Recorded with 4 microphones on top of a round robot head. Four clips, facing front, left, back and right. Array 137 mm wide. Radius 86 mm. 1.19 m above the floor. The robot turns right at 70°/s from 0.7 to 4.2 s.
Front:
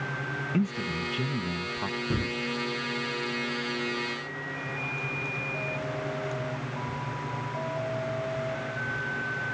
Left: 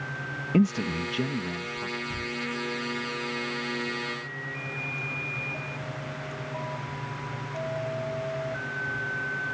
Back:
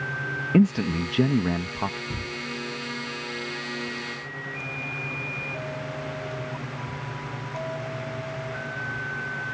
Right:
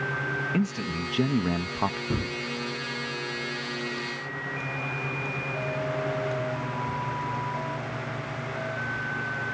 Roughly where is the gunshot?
Ahead right.